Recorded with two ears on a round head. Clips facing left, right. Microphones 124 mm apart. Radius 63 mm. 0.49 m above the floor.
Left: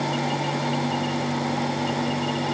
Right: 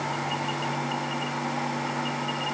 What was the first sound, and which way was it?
Only background noise.